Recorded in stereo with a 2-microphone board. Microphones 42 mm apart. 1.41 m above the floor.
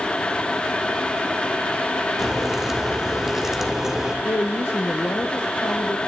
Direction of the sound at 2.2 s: 10° right (ahead or behind).